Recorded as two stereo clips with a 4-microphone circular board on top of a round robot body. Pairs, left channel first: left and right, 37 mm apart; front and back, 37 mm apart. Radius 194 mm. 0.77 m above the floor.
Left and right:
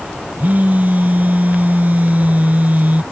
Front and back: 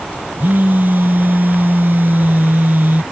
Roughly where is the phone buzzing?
Behind right.